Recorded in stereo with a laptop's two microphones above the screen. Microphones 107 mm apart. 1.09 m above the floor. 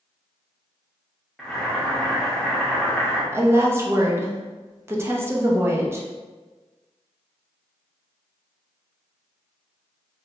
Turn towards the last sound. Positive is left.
turn(degrees=-25)  # may be behind; listen again after turning